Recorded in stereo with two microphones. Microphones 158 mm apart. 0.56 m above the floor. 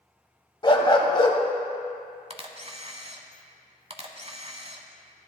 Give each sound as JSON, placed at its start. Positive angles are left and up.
{"t": 0.6, "sound": "a dog barking", "side_deg": 30, "distance_m": 0.9}
{"t": 2.3, "sound": "a camera shutter", "side_deg": -40, "distance_m": 0.8}